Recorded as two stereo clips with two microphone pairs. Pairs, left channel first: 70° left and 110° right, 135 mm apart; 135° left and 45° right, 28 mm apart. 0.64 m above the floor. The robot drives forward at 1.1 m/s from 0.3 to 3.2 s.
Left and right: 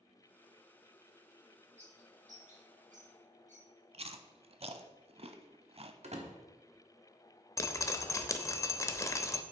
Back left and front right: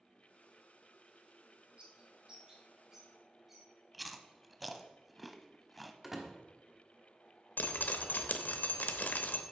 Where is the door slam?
120° right, 1.3 m.